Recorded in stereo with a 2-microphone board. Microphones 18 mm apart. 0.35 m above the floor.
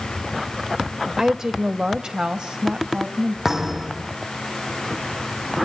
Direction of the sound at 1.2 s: 30° right (ahead or behind).